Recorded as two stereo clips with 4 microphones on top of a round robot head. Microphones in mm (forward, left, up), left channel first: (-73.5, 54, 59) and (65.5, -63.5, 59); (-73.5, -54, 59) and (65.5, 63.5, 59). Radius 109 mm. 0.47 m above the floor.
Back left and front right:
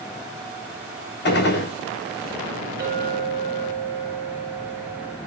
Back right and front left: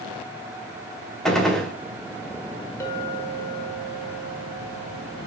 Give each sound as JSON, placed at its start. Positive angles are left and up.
{"t": 1.2, "sound": "a gunshot", "azimuth_deg": 135, "distance_m": 1.7}
{"t": 2.8, "sound": "a clink", "azimuth_deg": -65, "distance_m": 1.3}